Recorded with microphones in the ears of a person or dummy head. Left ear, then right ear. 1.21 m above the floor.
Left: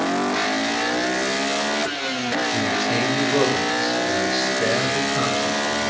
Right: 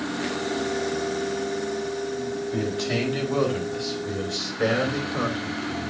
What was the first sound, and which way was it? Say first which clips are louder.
A man speaking: left 6 dB; 10° left (ahead or behind).